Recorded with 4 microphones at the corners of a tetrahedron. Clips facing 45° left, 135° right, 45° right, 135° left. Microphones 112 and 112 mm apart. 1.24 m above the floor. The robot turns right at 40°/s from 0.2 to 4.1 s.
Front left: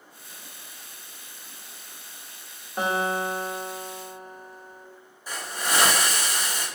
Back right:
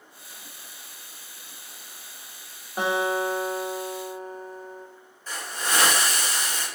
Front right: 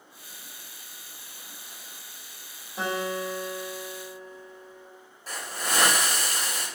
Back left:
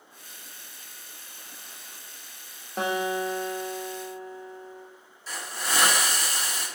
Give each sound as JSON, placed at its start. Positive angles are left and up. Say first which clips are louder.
{"t": 2.8, "sound": "a guitar", "louder": "back right 1 dB, back left 3 dB", "azimuth_deg": 140, "distance_m": 0.5}
{"t": 5.3, "sound": "a hiss", "louder": "front left 1 dB, front right 1 dB", "azimuth_deg": -30, "distance_m": 0.9}